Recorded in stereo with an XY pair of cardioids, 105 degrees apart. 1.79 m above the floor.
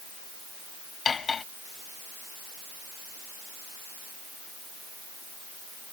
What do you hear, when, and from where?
1.1 s cutlery clinking: 35° left